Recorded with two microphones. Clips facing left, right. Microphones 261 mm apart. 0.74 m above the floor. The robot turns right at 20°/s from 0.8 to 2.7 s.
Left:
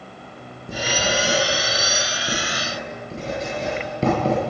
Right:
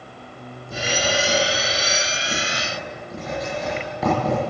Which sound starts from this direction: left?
Writing, at 0.7 s.